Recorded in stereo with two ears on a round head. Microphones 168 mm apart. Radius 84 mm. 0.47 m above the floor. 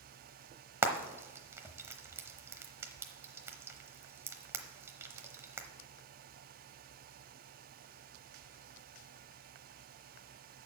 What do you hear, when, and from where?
0.8 s frying: 15° right (ahead or behind), 0.8 m